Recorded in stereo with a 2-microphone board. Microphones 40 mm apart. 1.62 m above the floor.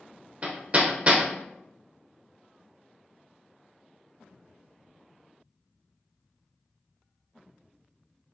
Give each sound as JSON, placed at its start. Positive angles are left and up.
{"t": 0.4, "sound": "hammering", "side_deg": -30, "distance_m": 0.8}